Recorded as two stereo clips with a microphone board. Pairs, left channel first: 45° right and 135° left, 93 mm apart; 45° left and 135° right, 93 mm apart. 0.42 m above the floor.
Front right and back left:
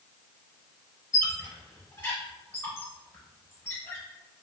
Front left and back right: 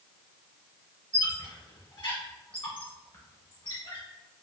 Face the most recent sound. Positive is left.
turn(degrees=15)